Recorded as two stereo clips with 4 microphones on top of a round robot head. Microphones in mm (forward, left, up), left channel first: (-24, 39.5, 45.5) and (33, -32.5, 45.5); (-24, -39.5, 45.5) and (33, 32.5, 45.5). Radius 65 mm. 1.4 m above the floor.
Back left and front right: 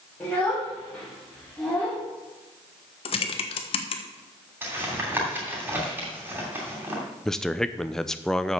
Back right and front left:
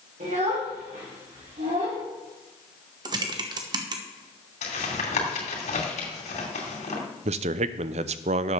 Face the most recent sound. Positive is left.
turn(degrees=45)